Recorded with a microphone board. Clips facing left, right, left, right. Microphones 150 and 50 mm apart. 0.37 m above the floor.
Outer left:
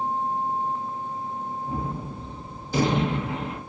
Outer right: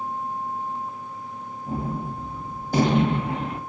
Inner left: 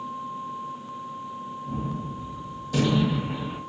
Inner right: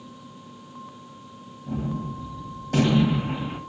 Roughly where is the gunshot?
Right.